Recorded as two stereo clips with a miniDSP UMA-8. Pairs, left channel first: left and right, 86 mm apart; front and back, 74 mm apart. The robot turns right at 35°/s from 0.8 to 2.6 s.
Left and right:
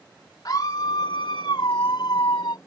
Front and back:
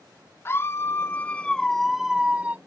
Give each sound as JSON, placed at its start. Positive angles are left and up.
{"t": 0.5, "sound": "a scream", "azimuth_deg": 50}